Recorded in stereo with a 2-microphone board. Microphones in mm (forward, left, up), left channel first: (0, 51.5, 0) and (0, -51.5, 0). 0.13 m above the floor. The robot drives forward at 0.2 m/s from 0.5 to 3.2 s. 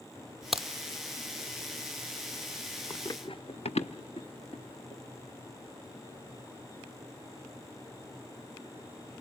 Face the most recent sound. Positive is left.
turn(degrees=55)  # may be behind; listen again after turning